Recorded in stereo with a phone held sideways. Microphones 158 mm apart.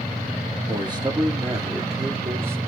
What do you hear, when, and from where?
0.7 s a man speaking: 30° right (ahead or behind), 3 m; by 2.6 s 15° right (ahead or behind), 3.5 m